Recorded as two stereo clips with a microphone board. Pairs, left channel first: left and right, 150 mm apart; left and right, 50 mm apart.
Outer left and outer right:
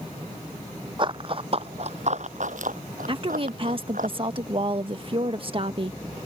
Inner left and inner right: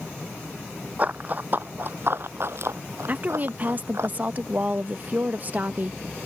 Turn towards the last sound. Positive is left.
turn(degrees=-35)  # may be behind; listen again after turning